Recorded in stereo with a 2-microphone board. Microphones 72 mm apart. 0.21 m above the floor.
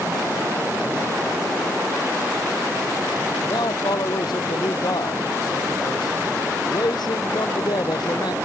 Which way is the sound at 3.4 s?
70° left (ahead or behind).